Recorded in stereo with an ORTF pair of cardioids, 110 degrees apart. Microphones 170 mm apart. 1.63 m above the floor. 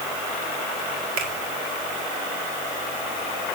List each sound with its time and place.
1.2 s a finger snap: 60° right, 3 m